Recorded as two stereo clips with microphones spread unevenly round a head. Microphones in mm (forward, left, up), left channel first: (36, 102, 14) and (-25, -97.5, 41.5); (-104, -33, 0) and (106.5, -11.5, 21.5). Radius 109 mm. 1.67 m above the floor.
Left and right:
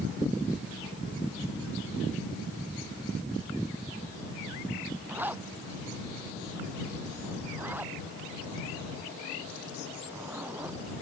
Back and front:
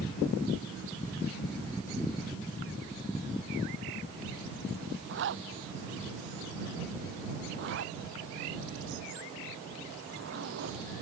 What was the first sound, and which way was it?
A zipper, 25° right.